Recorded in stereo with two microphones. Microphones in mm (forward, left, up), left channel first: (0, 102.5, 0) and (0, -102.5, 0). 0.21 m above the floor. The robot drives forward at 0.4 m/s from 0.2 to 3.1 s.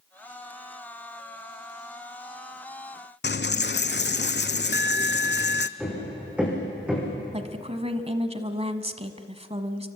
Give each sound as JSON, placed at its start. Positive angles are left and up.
{"t": 3.2, "sound": "a dropped coin", "side_deg": 60, "distance_m": 0.7}
{"t": 5.8, "sound": "hammering", "side_deg": -5, "distance_m": 9.0}
{"t": 7.3, "sound": "a woman speaking", "side_deg": -30, "distance_m": 1.5}